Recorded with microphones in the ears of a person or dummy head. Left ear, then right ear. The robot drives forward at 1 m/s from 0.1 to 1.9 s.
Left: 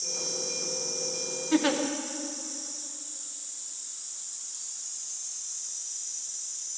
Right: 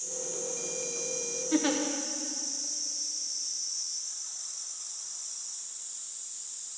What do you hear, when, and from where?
1.5 s a giggle: 15° left (ahead or behind), 0.7 m; by 1.8 s 10° left (ahead or behind), 1.0 m